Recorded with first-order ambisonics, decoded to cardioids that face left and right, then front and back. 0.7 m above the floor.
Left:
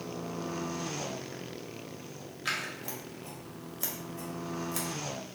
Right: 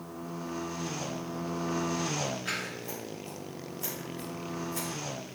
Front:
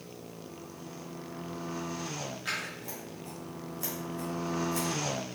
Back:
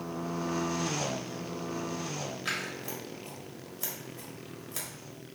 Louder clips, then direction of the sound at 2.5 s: Even, back 1 dB; 105° left.